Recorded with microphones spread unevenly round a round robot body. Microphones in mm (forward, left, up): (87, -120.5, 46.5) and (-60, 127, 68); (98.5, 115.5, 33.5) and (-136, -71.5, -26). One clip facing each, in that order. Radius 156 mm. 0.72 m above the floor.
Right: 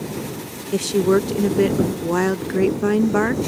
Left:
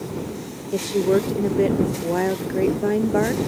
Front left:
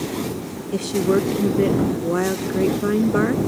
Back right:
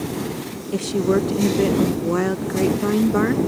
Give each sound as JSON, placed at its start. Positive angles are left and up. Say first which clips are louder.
{"t": 0.7, "sound": "a woman speaking", "louder": "right 2 dB, even", "azimuth_deg": -85}